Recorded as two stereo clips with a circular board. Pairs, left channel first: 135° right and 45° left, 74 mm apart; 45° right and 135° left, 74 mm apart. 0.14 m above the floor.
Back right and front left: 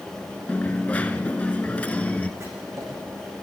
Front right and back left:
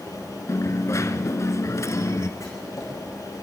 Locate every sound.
0.5 s a dropped coin: 70° right, 0.8 m
2.4 s writing: straight ahead, 5.5 m